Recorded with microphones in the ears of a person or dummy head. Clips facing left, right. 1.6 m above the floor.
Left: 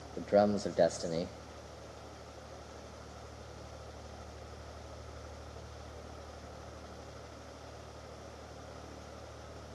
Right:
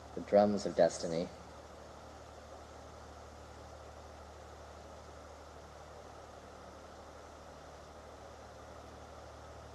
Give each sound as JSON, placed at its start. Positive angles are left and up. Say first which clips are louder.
{"t": 0.2, "sound": "a man speaking", "louder": "even", "side_deg": 0, "distance_m": 0.5}